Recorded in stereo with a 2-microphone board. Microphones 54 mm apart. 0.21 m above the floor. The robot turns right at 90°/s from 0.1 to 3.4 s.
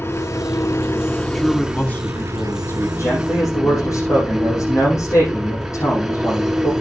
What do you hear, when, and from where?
0.0 s an engine running: 60° left, 1.4 m; by 6.8 s 5° right, 1.4 m
1.3 s a man speaking: 5° right, 2 m; by 2.9 s 135° left, 2 m
3.0 s a man speaking: 65° left, 8.5 m; by 6.7 s 105° left, 8.5 m